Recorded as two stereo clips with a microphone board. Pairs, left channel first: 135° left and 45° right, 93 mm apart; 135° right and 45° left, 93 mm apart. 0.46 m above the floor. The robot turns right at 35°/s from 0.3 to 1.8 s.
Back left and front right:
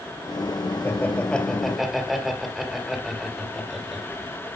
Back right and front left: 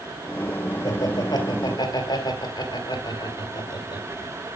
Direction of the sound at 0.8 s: 165° right.